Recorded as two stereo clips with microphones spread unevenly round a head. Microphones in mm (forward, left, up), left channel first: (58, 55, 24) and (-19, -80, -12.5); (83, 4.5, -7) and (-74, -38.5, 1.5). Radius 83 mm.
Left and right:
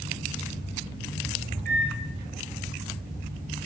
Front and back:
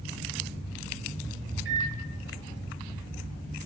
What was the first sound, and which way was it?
A microwave, 160° right.